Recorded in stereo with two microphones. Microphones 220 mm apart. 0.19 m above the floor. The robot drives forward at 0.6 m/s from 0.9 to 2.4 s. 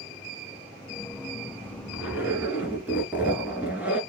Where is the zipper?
10° right (ahead or behind), 1.5 m.